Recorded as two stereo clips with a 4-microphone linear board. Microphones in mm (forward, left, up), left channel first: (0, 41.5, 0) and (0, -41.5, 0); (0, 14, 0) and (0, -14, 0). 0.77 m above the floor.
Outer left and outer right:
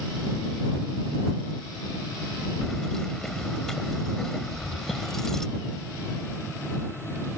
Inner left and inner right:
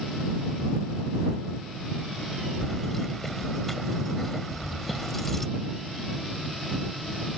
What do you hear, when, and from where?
2.6 s keys jangling: 5° left (ahead or behind)